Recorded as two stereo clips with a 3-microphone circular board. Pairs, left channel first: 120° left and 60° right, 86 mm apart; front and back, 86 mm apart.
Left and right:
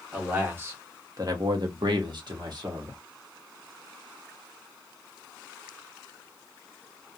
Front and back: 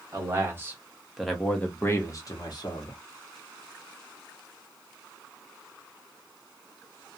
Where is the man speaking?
130° right, 1.2 m; by 3.0 s 20° right, 1.2 m.